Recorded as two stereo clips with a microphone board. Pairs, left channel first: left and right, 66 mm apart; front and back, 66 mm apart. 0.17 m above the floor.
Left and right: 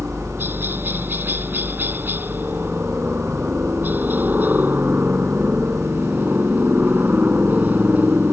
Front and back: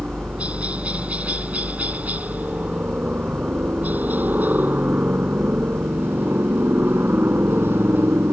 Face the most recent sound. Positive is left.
turn(degrees=-140)